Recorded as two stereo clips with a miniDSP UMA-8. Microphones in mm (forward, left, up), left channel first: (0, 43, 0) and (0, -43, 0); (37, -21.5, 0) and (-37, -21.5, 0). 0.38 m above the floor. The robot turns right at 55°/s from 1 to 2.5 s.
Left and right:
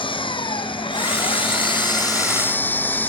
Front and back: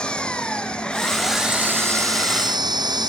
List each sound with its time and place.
0.0 s an engine running: 75° left; by 3.1 s 160° left